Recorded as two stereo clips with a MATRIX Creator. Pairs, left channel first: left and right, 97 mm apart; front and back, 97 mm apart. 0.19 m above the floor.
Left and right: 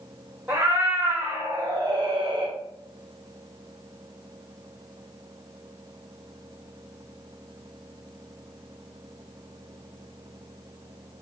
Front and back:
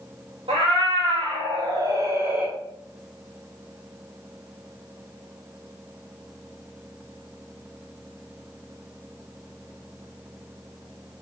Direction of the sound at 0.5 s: 160° right.